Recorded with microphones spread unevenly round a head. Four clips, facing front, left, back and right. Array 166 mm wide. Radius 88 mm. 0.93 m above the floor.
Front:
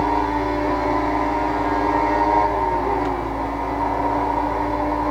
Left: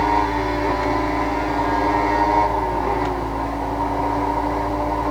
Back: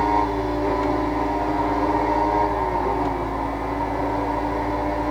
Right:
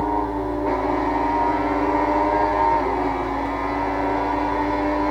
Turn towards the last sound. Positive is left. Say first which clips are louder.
# left 3 dB, front 1 dB
turn(degrees=150)